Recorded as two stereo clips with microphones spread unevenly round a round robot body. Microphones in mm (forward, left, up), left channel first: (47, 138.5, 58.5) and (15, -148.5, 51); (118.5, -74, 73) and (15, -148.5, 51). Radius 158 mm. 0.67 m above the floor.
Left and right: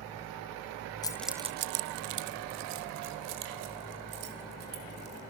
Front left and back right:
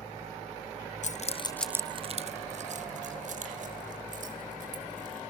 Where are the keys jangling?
5° left, 0.8 m; by 5.2 s 140° right, 4 m.